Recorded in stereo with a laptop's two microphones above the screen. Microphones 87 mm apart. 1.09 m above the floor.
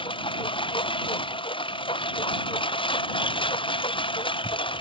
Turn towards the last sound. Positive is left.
turn(degrees=75)  # may be behind; listen again after turning